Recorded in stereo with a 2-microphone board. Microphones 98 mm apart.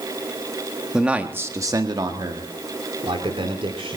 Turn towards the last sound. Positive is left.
turn(degrees=-70)  # may be behind; listen again after turning